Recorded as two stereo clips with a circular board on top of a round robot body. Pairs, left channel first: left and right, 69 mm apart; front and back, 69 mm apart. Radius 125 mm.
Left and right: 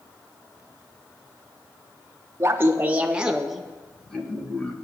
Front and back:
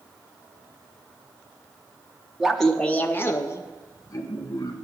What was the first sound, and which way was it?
Laughter, 95° right.